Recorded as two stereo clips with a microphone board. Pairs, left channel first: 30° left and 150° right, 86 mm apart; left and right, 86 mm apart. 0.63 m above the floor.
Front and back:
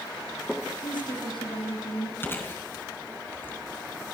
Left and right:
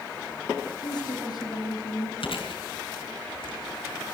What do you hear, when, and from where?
0.8 s a woman speaking: 55° left, 5 m
2.2 s chewing: 95° left, 4 m